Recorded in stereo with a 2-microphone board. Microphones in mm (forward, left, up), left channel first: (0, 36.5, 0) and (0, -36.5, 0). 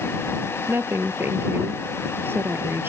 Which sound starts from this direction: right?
A woman speaking, at 0.7 s.